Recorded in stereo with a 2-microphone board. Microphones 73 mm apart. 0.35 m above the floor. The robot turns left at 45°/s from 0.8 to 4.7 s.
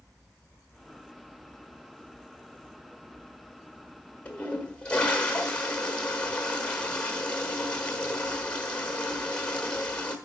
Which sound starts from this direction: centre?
A toilet flushing, at 4.2 s.